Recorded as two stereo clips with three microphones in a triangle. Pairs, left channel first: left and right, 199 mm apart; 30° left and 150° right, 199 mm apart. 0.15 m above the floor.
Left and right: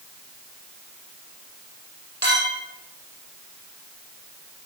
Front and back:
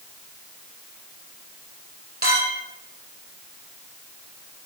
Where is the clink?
115° right, 3 m.